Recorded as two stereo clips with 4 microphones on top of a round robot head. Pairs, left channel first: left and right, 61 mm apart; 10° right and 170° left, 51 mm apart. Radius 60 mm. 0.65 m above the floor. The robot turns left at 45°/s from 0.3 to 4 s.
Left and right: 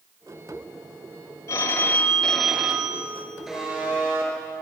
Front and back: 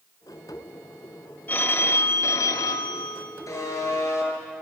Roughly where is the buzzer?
Ahead.